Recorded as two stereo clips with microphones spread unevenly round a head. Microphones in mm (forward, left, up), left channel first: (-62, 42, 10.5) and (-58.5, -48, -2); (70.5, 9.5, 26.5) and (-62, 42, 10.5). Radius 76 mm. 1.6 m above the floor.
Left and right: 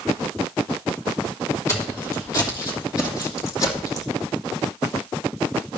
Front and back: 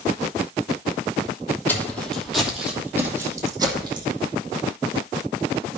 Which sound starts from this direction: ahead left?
Footsteps, at 1.7 s.